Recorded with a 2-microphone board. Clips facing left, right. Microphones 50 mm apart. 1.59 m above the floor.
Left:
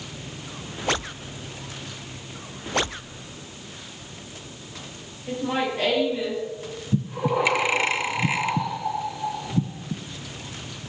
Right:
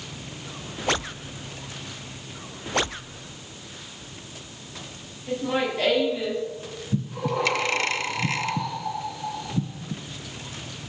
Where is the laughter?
10° left (ahead or behind), 6 m.